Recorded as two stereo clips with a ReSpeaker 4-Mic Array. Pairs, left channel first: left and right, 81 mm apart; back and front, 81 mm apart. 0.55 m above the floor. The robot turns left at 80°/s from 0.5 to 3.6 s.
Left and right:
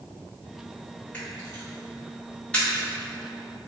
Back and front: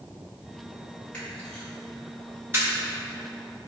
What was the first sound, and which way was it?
A camera shutter, 135° left.